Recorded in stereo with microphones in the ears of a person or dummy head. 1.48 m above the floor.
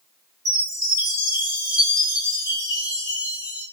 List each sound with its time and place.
0.5 s a chime: 20° left (ahead or behind), 1.0 m